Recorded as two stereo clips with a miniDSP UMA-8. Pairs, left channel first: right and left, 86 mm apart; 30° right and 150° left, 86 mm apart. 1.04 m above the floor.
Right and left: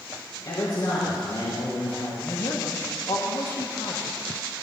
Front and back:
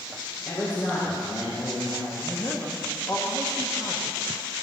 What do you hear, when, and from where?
0.5 s a man speaking: 60° right, 4 m; by 2.1 s 45° right, 4 m
2.2 s a man speaking: 75° right, 2 m